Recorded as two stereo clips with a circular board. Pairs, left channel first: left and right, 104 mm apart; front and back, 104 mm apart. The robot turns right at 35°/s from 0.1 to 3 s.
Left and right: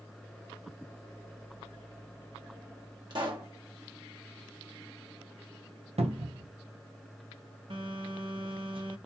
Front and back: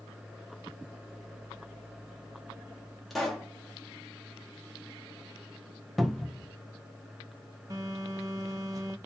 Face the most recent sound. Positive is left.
turn(degrees=-125)